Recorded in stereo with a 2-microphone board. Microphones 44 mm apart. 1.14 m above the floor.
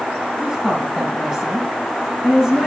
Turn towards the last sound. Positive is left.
turn(degrees=-5)  # may be behind; listen again after turning